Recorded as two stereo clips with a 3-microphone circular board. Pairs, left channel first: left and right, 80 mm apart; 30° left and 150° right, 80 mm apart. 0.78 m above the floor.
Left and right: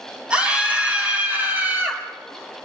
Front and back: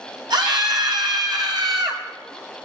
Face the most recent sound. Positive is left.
turn(degrees=-150)